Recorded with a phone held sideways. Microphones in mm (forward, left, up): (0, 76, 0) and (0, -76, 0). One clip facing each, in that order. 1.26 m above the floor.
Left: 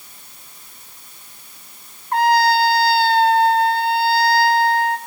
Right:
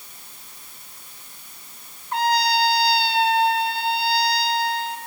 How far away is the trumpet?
About 1.5 m.